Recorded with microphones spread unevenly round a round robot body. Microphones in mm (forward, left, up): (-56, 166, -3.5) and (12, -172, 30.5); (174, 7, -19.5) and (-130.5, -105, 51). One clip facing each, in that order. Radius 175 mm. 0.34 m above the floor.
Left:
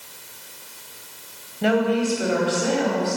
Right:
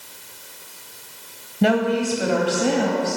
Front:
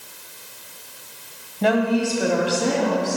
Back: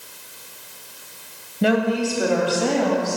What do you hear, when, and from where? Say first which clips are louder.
1.6 s a woman speaking: right 1 dB, even; 85° right, 2 m; by 3.2 s 40° right, 2.5 m